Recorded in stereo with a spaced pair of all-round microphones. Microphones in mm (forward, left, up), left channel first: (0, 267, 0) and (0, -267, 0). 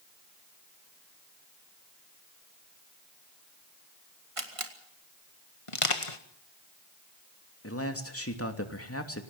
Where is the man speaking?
25° left (ahead or behind), 3 m.